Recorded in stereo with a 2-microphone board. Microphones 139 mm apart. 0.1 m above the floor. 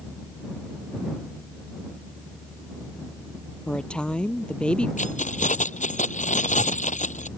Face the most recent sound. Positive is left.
turn(degrees=65)  # may be behind; listen again after turning